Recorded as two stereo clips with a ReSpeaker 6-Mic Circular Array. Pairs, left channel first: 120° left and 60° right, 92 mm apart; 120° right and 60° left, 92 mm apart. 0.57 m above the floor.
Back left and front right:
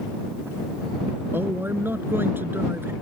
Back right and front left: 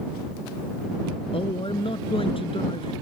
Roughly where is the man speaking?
Behind right.